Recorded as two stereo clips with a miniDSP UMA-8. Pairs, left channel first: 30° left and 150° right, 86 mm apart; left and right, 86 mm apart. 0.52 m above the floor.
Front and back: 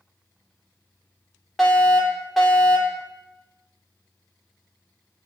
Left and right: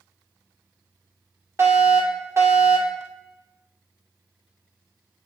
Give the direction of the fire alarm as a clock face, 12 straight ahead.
2 o'clock.